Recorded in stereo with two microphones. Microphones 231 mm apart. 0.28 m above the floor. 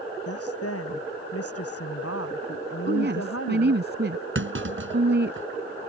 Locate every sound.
0.3 s a woman speaking: 85° left
2.9 s a woman speaking: 50° right (ahead or behind)
4.3 s a clunk: 60° right (ahead or behind)